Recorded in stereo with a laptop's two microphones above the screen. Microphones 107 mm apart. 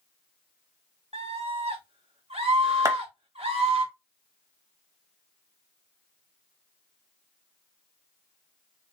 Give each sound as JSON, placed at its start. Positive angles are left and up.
{"t": 1.1, "sound": "a scream", "side_deg": -75, "distance_m": 1.5}
{"t": 2.9, "sound": "a clap", "side_deg": -30, "distance_m": 1.0}